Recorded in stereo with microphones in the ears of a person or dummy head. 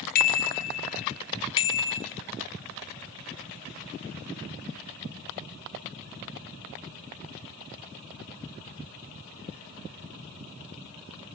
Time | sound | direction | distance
0.1 | a bicycle bell | 50° left (ahead or behind) | 4.5 m